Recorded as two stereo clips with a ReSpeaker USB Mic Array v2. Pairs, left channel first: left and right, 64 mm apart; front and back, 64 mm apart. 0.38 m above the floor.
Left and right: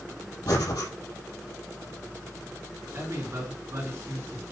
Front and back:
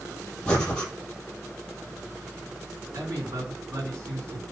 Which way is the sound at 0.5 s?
75° left.